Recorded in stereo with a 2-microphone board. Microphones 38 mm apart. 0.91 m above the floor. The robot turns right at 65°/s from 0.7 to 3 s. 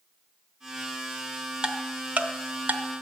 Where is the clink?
I don't hear a clink.